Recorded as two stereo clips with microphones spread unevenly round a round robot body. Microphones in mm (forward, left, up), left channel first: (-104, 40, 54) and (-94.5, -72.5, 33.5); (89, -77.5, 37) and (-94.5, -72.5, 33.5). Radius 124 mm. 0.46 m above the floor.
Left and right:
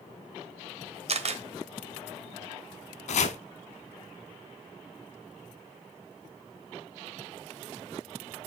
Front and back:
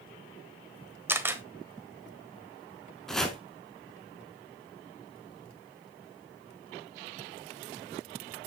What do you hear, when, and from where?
1.1 s a camera shutter: 105° right, 1.4 m
3.1 s chopping: 85° left, 0.7 m